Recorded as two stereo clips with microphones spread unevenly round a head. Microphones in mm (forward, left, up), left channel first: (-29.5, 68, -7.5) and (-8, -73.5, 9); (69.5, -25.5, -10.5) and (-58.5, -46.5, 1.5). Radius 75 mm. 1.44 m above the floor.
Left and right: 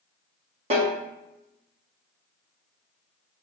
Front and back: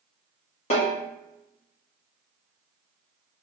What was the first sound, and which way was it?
A snare drum, 25° right.